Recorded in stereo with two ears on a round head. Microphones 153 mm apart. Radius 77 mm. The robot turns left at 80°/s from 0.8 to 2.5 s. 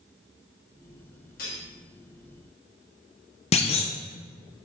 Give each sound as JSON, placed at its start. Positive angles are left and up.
{"t": 1.4, "sound": "cutlery clinking", "side_deg": 55, "distance_m": 1.8}
{"t": 3.5, "sound": "a clunk", "side_deg": 35, "distance_m": 0.6}